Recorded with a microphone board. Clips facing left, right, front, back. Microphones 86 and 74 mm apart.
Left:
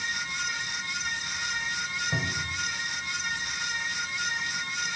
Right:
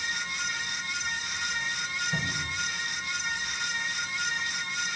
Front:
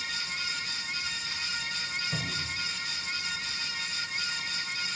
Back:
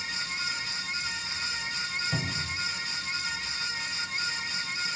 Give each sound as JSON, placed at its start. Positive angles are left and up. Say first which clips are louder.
{"t": 2.1, "sound": "a cupboard door", "louder": "left 1 dB, back 2 dB", "azimuth_deg": 110, "distance_m": 5.5}